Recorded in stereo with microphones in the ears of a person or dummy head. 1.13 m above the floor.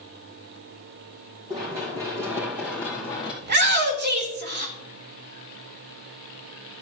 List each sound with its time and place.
1.5 s running footsteps: 20° right (ahead or behind), 3 m; by 3.3 s centre (ahead or behind), 2.5 m
3.4 s a shout: 50° right (ahead or behind), 1.4 m